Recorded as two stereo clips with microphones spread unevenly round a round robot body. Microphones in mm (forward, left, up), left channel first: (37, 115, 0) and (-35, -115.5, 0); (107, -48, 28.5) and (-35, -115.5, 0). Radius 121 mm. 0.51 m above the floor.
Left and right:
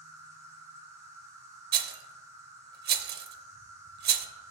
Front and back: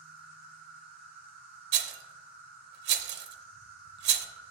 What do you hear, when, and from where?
0.0 s an insect: 175° left, 1.4 m
1.7 s a rattle: 160° right, 0.6 m